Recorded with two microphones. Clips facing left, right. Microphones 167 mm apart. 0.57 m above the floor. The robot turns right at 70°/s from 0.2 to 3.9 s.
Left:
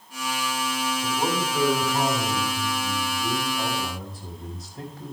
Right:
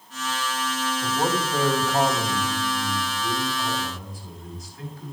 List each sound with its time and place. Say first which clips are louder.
1.0 s a man speaking: right 2 dB; 130° right, 4 m; by 5.1 s 75° left, 4 m